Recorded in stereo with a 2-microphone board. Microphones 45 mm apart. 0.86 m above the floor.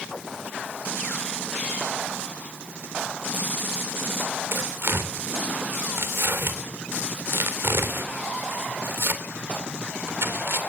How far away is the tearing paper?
About 3 m.